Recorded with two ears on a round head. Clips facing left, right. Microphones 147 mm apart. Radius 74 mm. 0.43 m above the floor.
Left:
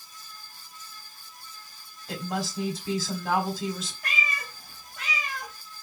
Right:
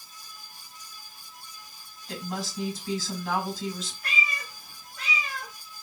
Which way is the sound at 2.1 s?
50° left (ahead or behind).